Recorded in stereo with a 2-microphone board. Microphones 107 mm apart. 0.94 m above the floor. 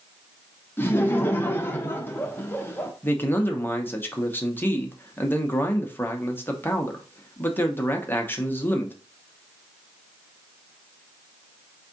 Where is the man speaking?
20° left (ahead or behind), 0.7 m.